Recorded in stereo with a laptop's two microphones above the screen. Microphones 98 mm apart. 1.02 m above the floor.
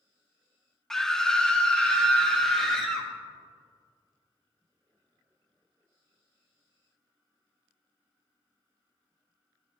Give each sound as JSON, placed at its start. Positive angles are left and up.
{"t": 0.9, "sound": "a scream", "side_deg": 5, "distance_m": 0.7}